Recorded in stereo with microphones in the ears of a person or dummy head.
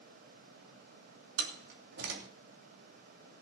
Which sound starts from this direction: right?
A door slam, at 1.4 s.